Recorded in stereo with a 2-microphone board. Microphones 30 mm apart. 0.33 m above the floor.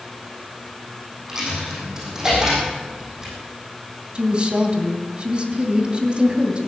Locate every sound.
1.3 s a dropped coin: 20° right (ahead or behind), 6.5 m
4.2 s a woman speaking: 35° right (ahead or behind), 2 m